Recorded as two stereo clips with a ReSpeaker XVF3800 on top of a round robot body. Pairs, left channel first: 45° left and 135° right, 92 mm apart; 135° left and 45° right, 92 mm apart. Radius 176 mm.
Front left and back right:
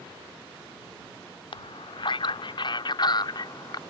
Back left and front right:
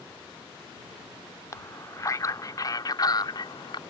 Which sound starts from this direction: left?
A man speaking, at 1.5 s.